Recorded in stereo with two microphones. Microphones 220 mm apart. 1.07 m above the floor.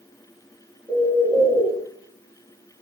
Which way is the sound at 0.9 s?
5° right (ahead or behind).